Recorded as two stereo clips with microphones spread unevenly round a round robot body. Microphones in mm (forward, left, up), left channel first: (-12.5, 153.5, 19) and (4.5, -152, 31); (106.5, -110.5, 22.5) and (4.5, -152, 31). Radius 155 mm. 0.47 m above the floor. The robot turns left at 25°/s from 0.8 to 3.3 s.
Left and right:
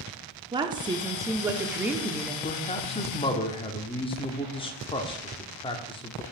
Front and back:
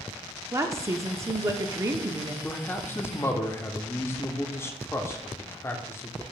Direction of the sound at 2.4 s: 65° left.